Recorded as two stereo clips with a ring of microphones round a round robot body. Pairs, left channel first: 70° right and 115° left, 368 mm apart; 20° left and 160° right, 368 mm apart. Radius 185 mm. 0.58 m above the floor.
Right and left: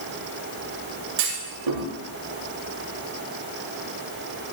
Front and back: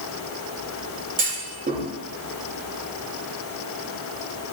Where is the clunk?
135° left, 7 m.